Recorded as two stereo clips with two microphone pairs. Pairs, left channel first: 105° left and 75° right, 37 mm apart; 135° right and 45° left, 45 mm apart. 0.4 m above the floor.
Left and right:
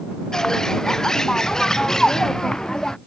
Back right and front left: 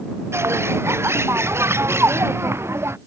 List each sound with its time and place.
0.3 s a bird: 25° left